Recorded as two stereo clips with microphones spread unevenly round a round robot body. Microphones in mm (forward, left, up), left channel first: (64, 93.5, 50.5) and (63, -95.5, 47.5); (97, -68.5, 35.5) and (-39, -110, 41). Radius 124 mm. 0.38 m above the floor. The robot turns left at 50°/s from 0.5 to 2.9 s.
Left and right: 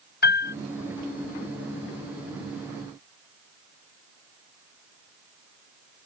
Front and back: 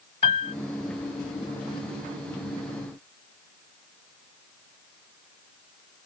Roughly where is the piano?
Left.